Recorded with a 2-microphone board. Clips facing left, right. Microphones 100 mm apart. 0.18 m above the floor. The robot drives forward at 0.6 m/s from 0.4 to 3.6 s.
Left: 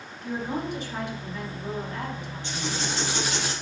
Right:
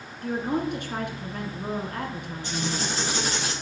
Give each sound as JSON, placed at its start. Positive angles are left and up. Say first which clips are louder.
{"t": 0.2, "sound": "a woman speaking", "louder": "right 3 dB", "side_deg": -55, "distance_m": 2.0}
{"t": 2.4, "sound": "writing", "louder": "right 2 dB", "side_deg": -40, "distance_m": 5.0}